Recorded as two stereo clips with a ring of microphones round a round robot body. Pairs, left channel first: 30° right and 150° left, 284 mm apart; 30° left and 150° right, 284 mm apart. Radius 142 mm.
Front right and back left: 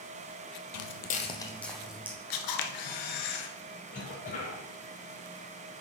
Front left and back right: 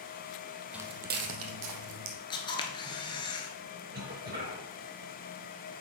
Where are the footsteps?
65° right, 0.6 m; by 2.2 s 125° right, 1.5 m.